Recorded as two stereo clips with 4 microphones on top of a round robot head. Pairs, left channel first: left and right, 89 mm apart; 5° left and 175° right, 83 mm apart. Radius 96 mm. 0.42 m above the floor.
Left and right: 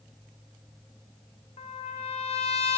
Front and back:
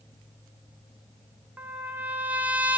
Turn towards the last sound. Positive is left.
turn(degrees=115)